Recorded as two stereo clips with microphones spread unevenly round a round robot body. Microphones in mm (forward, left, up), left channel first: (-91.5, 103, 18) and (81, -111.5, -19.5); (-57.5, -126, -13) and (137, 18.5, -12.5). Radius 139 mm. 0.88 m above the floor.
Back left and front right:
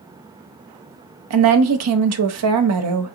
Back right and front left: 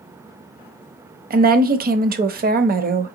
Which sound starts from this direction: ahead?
A woman speaking, at 1.3 s.